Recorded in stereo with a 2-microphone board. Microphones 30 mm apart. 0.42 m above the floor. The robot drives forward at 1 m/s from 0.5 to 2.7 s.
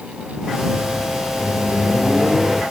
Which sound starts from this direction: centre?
A microwave, at 1.4 s.